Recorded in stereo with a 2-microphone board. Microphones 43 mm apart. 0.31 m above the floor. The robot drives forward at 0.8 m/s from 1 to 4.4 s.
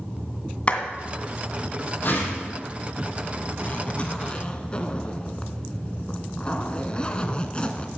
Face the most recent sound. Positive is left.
turn(degrees=25)  # may be behind; listen again after turning